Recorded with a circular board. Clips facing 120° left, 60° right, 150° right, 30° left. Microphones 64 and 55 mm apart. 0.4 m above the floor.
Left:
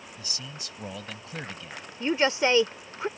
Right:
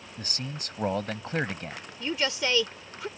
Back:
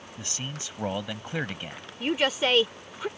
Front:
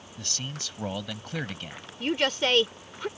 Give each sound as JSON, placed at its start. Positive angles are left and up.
{"t": 0.2, "sound": "a man speaking", "azimuth_deg": -80}
{"t": 2.0, "sound": "a woman speaking", "azimuth_deg": 135}